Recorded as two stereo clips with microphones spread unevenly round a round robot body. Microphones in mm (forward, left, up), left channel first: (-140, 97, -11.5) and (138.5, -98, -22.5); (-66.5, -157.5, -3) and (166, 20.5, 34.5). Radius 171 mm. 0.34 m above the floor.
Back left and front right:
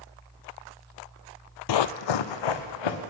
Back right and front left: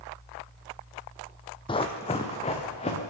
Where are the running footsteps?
140° left, 0.5 m.